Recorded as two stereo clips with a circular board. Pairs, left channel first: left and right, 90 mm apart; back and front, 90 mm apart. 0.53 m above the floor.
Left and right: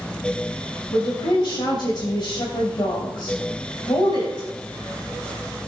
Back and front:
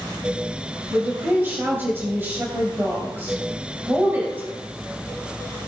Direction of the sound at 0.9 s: 65° left.